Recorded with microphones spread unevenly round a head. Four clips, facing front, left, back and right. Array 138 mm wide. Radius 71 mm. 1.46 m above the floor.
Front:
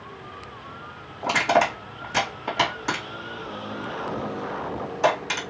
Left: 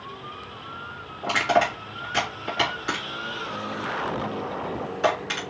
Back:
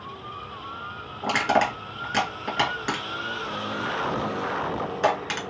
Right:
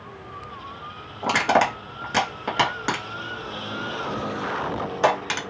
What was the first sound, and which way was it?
Crushing, 90° right.